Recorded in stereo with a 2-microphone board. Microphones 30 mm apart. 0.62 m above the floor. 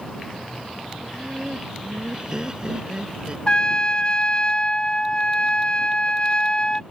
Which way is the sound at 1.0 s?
20° right (ahead or behind).